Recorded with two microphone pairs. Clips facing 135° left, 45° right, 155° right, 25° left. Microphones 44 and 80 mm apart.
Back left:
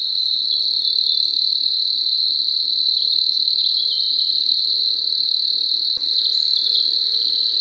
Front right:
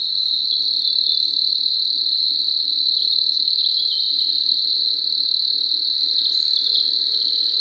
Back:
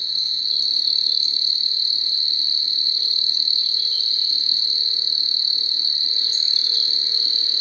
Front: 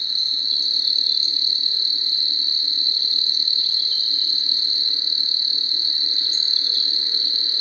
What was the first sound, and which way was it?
An insect, 45° left.